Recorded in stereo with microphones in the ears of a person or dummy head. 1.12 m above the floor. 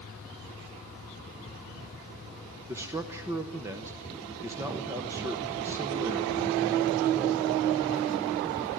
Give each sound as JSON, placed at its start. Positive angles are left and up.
{"t": 2.7, "sound": "a man speaking", "side_deg": -15, "distance_m": 0.9}